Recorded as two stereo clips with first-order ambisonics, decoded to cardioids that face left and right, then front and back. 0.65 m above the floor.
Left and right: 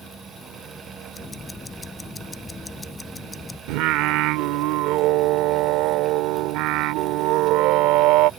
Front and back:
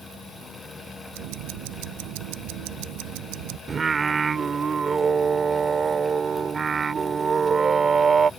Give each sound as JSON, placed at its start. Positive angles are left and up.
{"t": 1.1, "sound": "ticking", "azimuth_deg": 170}
{"t": 3.7, "sound": "singing", "azimuth_deg": -110}